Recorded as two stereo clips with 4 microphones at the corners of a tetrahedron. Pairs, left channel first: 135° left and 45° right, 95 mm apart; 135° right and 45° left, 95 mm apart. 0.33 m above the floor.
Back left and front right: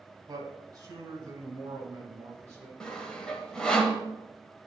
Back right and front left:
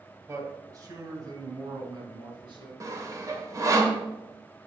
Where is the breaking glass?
I don't hear breaking glass.